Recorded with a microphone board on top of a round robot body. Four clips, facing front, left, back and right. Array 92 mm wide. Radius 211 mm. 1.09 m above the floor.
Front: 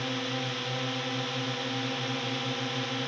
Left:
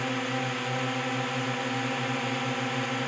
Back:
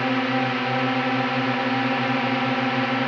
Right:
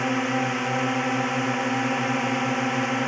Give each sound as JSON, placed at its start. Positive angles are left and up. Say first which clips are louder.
{"t": 0.0, "sound": "a drone", "louder": "right 6 dB, back 11 dB", "azimuth_deg": -155}